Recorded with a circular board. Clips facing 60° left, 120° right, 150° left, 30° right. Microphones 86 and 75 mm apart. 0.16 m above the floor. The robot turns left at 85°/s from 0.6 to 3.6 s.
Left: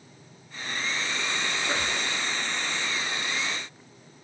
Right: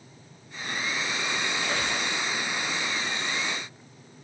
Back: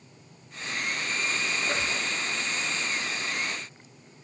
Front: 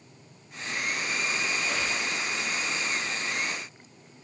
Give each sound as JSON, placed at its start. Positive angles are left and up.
{"t": 1.6, "sound": "a squeak", "azimuth_deg": 120, "distance_m": 0.8}